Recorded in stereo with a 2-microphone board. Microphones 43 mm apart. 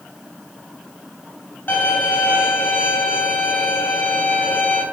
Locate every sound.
1.7 s a violin: 55° left (ahead or behind), 3 m